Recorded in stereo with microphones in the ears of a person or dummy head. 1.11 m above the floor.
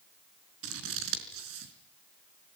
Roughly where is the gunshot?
I don't hear a gunshot.